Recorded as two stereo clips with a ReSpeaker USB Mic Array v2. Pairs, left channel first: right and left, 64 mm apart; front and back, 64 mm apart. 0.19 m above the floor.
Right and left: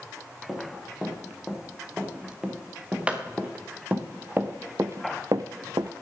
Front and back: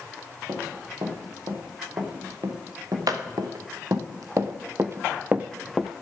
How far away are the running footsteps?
About 4 m.